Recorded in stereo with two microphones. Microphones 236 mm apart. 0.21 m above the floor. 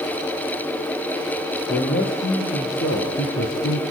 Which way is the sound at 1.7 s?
55° left (ahead or behind).